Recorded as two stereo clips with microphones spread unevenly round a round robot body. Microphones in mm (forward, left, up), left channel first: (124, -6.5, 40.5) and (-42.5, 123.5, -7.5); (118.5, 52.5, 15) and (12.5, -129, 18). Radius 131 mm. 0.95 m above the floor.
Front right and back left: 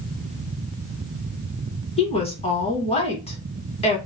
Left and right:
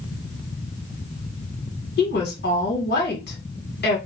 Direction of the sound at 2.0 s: 30° left.